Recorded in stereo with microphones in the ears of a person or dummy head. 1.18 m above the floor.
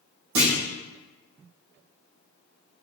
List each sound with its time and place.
0.3 s a clunk: 55° right (ahead or behind), 1.2 m